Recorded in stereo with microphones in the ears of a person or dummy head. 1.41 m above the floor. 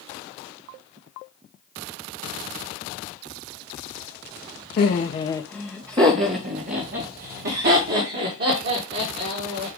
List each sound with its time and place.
4.8 s laughter: 50° left (ahead or behind), 0.8 m; by 9.8 s 65° right (ahead or behind), 3.5 m